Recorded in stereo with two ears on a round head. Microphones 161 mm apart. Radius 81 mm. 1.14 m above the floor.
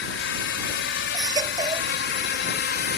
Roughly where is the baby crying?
Right.